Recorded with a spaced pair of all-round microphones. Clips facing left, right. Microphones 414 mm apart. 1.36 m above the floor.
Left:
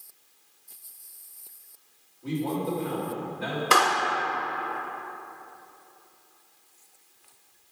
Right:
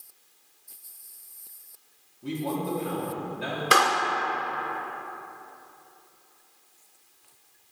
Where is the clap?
Centre (ahead or behind), 0.7 m.